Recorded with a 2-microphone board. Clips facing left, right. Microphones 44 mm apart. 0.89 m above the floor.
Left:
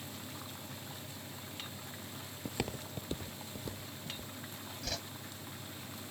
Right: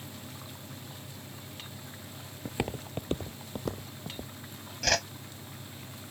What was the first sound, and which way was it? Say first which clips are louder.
Footsteps: right 5 dB; 10° right (ahead or behind).